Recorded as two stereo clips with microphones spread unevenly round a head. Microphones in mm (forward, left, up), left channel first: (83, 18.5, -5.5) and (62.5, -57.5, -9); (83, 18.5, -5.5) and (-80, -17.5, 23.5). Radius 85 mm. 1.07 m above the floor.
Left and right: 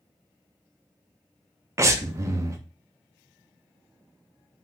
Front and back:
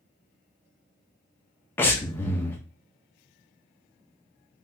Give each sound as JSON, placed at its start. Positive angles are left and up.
{"t": 1.8, "sound": "breathing", "azimuth_deg": -70, "distance_m": 0.6}